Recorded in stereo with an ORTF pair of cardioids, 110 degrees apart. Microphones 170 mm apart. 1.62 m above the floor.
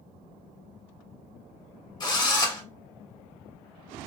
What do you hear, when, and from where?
2.0 s a drill: 25° left, 1.5 m